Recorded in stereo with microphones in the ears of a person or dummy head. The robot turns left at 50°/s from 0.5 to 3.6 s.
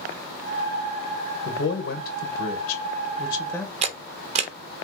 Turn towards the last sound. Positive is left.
turn(degrees=-35)  # may be behind; listen again after turning